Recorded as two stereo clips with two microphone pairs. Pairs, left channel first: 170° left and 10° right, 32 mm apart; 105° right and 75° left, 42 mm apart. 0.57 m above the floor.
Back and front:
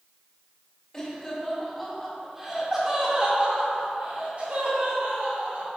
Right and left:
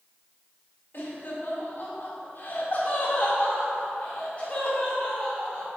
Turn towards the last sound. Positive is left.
turn(degrees=-35)